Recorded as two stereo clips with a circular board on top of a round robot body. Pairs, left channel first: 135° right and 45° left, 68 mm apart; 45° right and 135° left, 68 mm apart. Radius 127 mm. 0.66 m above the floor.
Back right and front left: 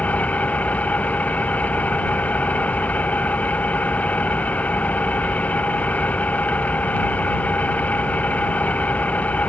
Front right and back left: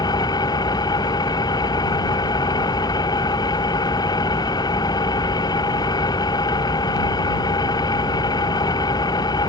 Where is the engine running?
65° right.